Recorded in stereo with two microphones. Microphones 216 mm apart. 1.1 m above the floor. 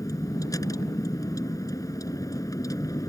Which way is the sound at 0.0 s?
15° left (ahead or behind).